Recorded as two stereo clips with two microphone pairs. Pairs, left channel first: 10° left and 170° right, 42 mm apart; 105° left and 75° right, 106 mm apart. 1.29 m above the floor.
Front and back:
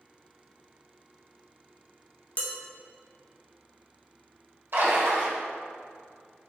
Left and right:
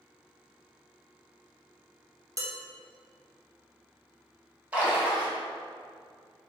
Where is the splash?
150° right, 0.8 m.